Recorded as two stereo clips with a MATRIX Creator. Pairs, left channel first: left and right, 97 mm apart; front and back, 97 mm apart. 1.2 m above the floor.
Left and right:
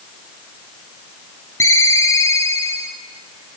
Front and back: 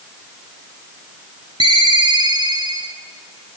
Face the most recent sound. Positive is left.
turn(degrees=150)